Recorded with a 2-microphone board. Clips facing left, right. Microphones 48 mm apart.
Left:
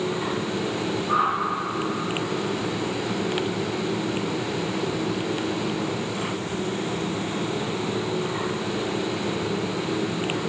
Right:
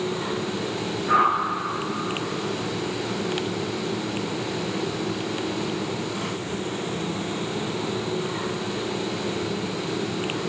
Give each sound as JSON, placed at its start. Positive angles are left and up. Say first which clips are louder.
{"t": 1.1, "sound": "a whoosh", "louder": "right 4 dB", "side_deg": -60, "distance_m": 1.5}